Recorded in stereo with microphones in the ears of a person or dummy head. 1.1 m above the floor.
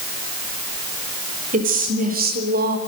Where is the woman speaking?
40° right (ahead or behind), 5 m; by 2.8 s 50° right (ahead or behind), 3.5 m.